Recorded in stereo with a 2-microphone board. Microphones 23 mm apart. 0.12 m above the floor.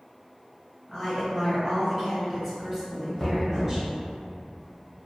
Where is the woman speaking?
10° left (ahead or behind), 1.3 m; by 3.9 s 25° right (ahead or behind), 1.9 m.